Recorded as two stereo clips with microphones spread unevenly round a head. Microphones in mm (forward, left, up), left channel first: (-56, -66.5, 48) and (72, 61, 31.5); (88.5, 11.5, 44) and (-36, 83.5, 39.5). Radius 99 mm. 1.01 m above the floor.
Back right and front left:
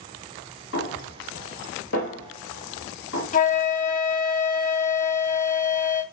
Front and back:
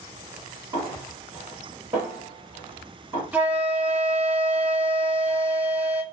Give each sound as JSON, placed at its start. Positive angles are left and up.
{"t": 0.7, "sound": "a snare drum", "azimuth_deg": -140, "distance_m": 1.9}
{"t": 3.3, "sound": "a flute", "azimuth_deg": -140, "distance_m": 0.7}